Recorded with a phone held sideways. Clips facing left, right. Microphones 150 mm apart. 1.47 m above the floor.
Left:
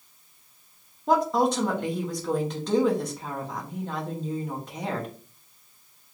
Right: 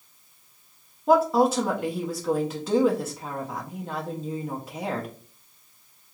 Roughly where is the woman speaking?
Centre.